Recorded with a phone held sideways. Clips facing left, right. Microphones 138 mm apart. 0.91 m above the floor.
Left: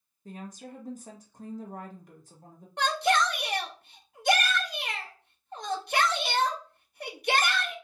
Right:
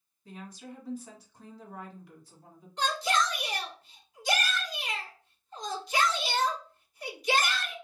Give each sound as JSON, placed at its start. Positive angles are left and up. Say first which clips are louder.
{"t": 0.2, "sound": "a woman speaking", "louder": "left 2 dB", "side_deg": 50, "distance_m": 1.1}
{"t": 2.8, "sound": "a shout", "louder": "left 3 dB", "side_deg": 70, "distance_m": 1.0}